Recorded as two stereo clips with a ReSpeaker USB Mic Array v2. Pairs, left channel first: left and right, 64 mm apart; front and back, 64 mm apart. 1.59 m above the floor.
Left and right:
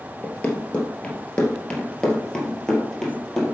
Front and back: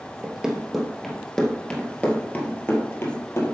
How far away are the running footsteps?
About 1.7 m.